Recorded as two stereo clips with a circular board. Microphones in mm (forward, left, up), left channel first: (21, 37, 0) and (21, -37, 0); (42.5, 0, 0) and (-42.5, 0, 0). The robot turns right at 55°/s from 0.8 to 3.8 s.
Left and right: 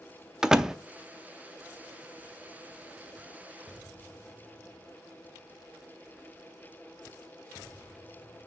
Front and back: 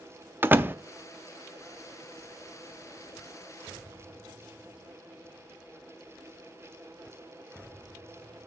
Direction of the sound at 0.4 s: 160° right.